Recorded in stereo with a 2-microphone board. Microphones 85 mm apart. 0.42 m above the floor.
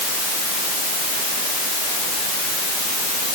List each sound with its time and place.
Only background noise.